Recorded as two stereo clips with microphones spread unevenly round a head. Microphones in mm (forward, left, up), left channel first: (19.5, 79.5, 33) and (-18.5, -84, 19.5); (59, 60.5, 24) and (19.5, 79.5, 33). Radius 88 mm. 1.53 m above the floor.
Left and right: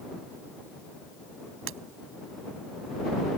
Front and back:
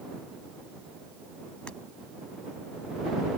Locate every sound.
1.7 s breaking glass: 110° right